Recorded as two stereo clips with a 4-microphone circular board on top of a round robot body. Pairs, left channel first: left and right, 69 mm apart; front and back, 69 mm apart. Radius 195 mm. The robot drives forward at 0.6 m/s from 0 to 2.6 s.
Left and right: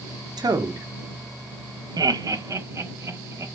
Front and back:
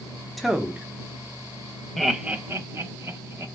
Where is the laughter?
85° right, 0.6 m; by 3.5 s 130° right, 0.7 m.